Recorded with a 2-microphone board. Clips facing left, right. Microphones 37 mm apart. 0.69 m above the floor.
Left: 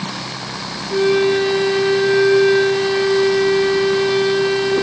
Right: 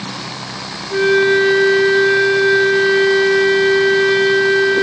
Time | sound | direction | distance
0.9 | a flute | 30° right (ahead or behind) | 2.5 m